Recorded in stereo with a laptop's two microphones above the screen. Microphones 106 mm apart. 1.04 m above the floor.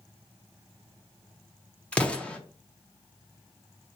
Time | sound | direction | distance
1.9 | an explosion | 10° left (ahead or behind) | 0.7 m